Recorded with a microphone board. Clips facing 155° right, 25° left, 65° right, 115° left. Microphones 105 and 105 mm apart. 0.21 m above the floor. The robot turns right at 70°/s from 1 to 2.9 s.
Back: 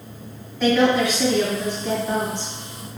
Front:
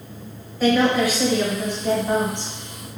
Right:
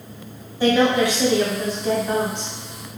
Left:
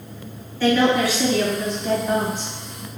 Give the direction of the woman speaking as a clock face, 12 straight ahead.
2 o'clock.